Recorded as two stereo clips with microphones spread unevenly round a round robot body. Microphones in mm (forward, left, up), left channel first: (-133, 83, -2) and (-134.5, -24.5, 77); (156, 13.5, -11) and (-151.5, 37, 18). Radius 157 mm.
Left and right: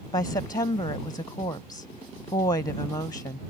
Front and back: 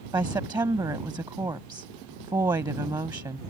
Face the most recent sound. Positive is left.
turn(degrees=95)